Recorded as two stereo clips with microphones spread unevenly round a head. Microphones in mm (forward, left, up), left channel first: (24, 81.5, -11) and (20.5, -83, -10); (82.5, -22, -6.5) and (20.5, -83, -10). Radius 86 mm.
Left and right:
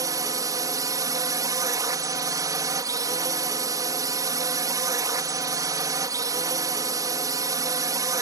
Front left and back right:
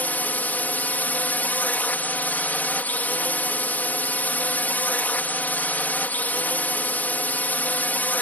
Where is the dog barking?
No dog barking in this recording.